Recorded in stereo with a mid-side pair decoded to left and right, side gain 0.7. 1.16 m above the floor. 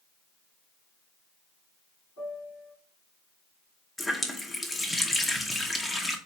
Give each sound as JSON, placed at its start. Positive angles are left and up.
{"t": 2.2, "sound": "a piano", "azimuth_deg": 55, "distance_m": 2.0}
{"t": 4.0, "sound": "a running tap", "azimuth_deg": 15, "distance_m": 0.9}